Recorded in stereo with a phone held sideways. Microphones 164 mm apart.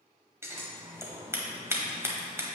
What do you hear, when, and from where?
0.4 s scissors: 15° right (ahead or behind), 1.3 m